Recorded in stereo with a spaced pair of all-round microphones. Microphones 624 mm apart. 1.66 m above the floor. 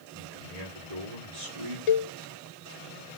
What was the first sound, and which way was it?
A man speaking, 80° right.